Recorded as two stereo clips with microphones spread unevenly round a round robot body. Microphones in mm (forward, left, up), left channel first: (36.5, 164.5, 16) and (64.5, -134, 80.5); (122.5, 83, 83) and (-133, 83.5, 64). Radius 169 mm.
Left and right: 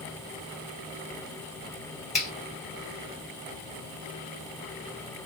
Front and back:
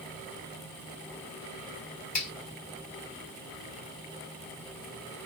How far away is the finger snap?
About 2.5 m.